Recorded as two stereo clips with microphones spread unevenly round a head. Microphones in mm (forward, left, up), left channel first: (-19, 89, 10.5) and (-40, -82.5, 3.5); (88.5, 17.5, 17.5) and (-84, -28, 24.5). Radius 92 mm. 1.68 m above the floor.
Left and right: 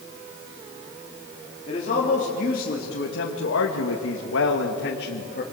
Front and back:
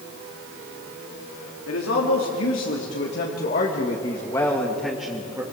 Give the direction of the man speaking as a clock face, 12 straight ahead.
11 o'clock.